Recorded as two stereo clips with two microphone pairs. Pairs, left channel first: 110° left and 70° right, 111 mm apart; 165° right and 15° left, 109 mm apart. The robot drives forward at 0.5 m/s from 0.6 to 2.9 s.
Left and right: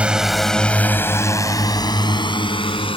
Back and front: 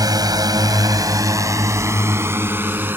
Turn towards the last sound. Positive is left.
turn(degrees=85)